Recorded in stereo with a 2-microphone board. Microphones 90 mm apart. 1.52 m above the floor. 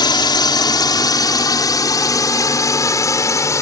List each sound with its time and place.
0.0 s a drone: 50° left (ahead or behind); by 3.6 s 35° left (ahead or behind)